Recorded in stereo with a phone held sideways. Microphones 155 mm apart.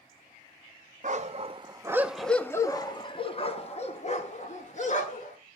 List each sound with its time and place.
1.0 s a dog barking: 50° right (ahead or behind), 0.7 m; by 5.4 s 50° left (ahead or behind), 2.0 m